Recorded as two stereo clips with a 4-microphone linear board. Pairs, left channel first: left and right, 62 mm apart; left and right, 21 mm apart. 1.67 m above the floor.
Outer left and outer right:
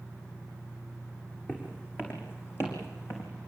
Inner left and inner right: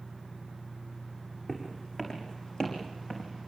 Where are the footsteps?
35° left (ahead or behind), 6.5 m; by 3.3 s 50° left (ahead or behind), 5.5 m.